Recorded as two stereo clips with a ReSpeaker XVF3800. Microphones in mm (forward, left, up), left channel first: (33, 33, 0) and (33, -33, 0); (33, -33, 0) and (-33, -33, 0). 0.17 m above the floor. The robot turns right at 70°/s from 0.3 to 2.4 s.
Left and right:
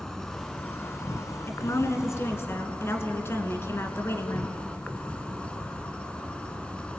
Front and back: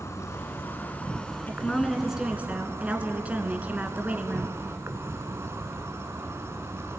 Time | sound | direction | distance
0.0 | an insect | 10° left | 1.5 m
1.5 | a woman speaking | 55° left | 2.0 m